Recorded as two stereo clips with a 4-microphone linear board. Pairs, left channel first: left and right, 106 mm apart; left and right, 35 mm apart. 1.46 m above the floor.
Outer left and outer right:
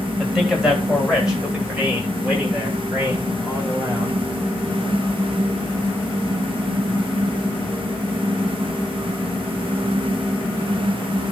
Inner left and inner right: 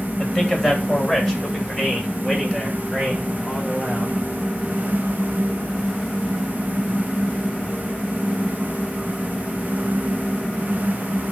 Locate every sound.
0.2 s a man speaking: centre (ahead or behind), 3.5 m; by 4.1 s 15° right (ahead or behind), 8 m